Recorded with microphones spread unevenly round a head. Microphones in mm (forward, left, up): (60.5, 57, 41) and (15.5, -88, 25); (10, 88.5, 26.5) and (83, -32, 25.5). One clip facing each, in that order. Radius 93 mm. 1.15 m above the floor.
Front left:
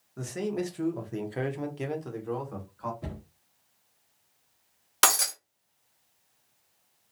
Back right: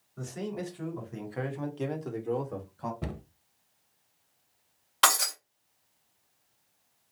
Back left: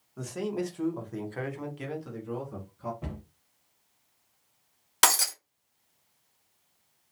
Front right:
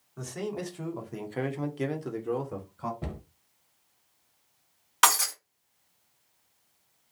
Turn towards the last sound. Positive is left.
turn(degrees=90)